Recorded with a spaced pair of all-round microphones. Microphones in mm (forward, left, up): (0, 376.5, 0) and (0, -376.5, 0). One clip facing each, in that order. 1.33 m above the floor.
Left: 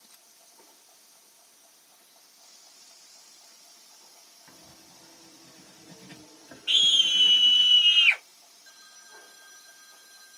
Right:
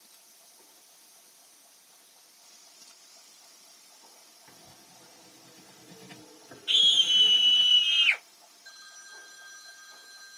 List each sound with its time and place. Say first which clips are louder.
4.5 s writing: left 2 dB; 10° left (ahead or behind), 0.9 m
6.7 s a scream: even; 45° left (ahead or behind), 0.8 m